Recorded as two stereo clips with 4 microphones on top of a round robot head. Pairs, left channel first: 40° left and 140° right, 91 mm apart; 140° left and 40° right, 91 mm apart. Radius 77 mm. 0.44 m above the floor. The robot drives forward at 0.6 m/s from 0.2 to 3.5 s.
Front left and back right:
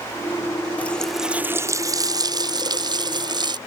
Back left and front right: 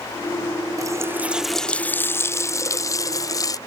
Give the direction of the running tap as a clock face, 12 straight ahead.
1 o'clock.